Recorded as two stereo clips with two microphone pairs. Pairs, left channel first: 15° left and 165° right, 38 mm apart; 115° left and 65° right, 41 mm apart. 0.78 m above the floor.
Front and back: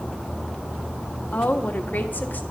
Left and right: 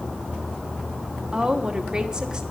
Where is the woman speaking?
5° right, 1.2 m.